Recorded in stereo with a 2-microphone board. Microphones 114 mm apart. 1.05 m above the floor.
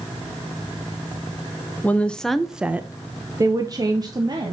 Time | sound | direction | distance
1.8 | a woman speaking | 15° left (ahead or behind) | 0.8 m